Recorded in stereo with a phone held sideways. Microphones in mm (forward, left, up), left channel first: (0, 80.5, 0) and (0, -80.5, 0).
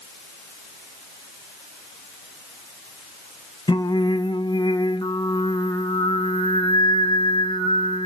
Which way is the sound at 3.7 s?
30° left (ahead or behind).